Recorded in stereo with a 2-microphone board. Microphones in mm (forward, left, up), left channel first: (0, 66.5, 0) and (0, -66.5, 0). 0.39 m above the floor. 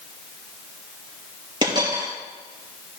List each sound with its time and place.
1.6 s a dropped coin: 30° right (ahead or behind), 4.5 m